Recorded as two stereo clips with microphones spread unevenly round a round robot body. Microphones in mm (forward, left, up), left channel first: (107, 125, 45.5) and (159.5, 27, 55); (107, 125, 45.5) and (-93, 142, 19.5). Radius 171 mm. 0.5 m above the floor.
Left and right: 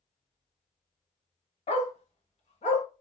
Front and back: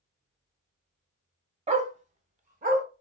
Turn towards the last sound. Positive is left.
turn(degrees=120)